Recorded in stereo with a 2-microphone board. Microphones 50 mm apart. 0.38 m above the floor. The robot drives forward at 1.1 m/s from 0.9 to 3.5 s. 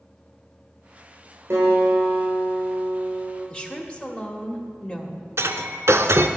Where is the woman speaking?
20° left (ahead or behind), 1.0 m.